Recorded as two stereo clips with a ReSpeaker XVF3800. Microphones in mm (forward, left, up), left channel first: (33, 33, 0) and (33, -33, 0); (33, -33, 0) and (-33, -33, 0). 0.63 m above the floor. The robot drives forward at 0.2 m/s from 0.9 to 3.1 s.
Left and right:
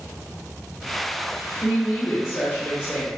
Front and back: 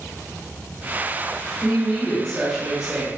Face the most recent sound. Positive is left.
turn(degrees=100)